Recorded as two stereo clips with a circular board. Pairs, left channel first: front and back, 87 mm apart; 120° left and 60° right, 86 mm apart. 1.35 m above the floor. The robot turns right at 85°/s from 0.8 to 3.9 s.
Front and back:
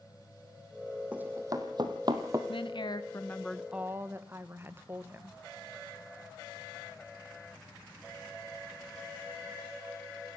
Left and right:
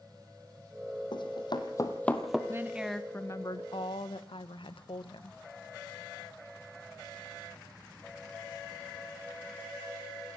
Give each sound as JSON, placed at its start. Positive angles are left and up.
{"t": 1.1, "sound": "running footsteps", "azimuth_deg": 105, "distance_m": 3.0}
{"t": 2.5, "sound": "a woman speaking", "azimuth_deg": -5, "distance_m": 1.4}